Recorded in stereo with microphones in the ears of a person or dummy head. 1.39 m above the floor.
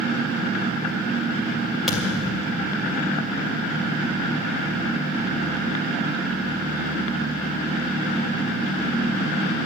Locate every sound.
1.9 s a thud: 5° left (ahead or behind), 2.5 m